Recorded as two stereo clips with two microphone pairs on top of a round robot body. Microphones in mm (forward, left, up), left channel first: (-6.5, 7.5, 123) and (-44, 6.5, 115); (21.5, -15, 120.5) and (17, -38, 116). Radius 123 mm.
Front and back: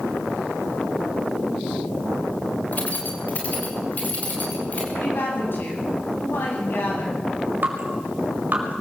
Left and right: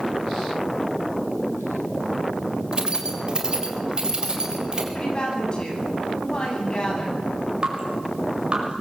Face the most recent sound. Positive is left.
turn(degrees=-150)